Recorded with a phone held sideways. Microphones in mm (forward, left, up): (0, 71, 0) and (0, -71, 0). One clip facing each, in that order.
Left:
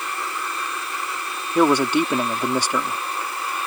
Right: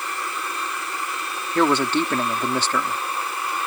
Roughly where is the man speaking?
Centre.